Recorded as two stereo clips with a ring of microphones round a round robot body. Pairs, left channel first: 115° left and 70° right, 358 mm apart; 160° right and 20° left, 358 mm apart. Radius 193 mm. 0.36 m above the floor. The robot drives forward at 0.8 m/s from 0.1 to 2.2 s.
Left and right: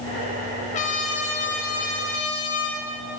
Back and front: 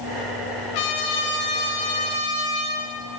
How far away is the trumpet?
About 0.8 m.